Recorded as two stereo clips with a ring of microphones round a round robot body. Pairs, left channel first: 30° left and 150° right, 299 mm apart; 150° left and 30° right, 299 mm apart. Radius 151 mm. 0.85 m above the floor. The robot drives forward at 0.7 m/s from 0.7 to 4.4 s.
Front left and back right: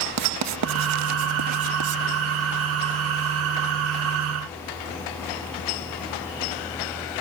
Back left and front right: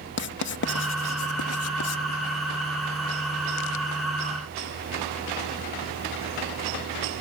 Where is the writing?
165° right; by 2.0 s 175° right.